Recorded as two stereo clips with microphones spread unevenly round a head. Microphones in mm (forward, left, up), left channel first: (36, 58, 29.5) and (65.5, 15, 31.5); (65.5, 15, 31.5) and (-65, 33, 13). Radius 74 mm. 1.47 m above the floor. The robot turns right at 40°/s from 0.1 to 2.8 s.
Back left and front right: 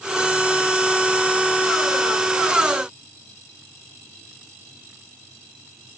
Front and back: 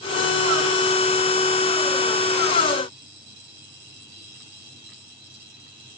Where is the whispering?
No whispering in this recording.